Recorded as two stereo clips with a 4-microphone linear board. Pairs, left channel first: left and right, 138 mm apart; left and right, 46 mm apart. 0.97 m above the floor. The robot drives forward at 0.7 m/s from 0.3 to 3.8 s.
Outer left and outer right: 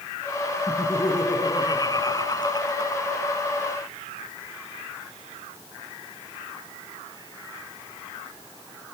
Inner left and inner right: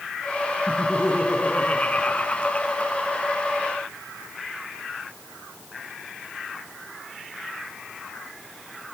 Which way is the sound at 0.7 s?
30° left (ahead or behind).